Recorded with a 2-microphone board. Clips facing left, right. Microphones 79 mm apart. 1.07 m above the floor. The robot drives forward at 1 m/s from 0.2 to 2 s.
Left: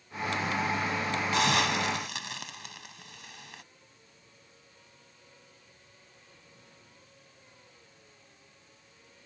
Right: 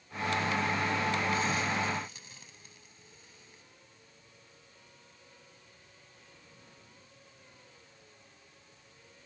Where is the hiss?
80° left.